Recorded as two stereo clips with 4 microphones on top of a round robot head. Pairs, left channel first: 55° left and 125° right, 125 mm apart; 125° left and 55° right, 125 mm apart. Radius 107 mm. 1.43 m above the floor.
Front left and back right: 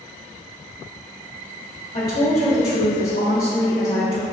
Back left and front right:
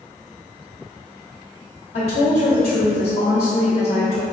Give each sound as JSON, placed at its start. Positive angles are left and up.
{"t": 1.9, "sound": "a woman speaking", "azimuth_deg": 85, "distance_m": 0.8}